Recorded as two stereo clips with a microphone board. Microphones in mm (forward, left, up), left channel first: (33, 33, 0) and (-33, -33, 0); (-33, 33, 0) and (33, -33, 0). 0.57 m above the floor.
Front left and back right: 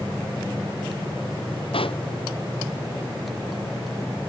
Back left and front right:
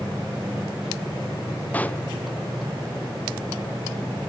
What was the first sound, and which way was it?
A pop, 60° left.